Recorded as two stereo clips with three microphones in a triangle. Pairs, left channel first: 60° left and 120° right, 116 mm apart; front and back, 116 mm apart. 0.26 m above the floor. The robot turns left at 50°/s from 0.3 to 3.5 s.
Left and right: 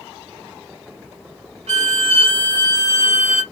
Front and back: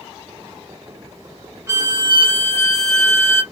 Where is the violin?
120° right, 0.7 m; by 3.4 s 155° left, 0.7 m.